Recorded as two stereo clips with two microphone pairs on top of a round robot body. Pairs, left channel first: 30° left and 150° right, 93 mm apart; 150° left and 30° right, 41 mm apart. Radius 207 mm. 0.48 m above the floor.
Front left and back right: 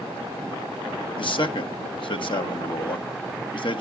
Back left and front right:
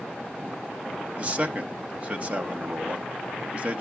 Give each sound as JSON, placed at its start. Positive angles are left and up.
{"t": 1.2, "sound": "a man speaking", "azimuth_deg": 25, "distance_m": 1.2}